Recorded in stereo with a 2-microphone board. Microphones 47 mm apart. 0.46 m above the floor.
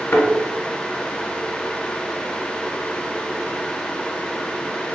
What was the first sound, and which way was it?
A thud, 60° left (ahead or behind).